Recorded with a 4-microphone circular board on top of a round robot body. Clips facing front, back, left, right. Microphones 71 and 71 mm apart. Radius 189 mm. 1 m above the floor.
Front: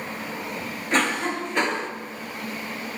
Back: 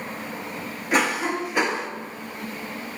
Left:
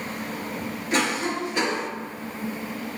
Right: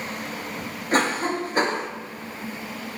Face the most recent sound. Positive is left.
turn(degrees=-100)